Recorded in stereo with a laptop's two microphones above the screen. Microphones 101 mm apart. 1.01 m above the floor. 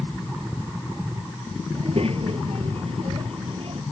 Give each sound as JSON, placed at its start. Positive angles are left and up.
{"t": 1.7, "sound": "a child speaking", "side_deg": -70}